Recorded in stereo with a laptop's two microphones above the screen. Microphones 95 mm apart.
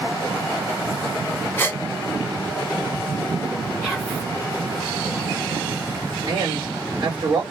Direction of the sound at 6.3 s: 50° right (ahead or behind).